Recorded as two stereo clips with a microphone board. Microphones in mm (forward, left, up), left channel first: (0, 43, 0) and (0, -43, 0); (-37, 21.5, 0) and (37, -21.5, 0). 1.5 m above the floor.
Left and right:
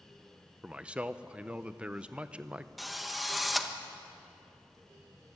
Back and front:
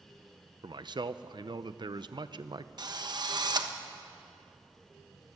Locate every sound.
0.6 s a man speaking: 15° right, 0.7 m
2.8 s a drill: straight ahead, 1.1 m